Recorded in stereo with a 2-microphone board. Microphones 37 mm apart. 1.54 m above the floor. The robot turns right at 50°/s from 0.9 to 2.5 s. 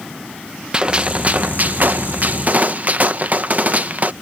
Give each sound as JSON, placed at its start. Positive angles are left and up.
{"t": 0.7, "sound": "a gunshot", "azimuth_deg": -145}